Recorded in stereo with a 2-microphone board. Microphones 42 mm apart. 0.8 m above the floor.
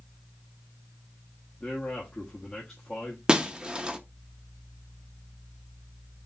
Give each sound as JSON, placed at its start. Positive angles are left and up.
{"t": 1.6, "sound": "a man speaking", "side_deg": 25, "distance_m": 1.1}
{"t": 3.3, "sound": "breaking glass", "side_deg": -20, "distance_m": 0.6}